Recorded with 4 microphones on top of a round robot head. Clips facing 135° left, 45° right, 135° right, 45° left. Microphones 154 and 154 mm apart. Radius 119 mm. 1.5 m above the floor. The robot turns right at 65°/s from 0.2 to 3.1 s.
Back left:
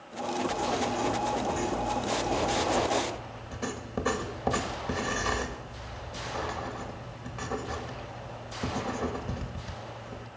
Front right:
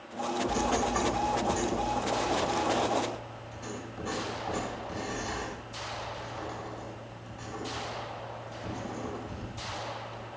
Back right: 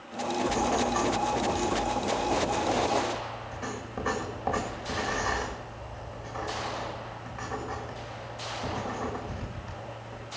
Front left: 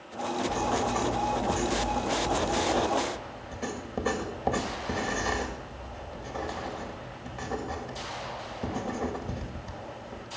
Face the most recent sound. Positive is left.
turn(degrees=110)